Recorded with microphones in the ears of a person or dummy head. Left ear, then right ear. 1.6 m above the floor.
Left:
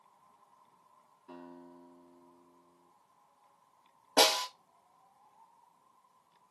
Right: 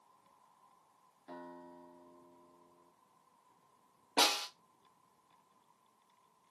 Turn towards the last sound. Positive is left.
turn(degrees=40)  # may be behind; listen again after turning